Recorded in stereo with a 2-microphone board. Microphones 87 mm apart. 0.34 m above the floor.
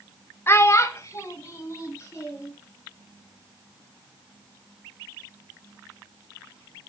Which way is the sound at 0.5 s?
30° left (ahead or behind).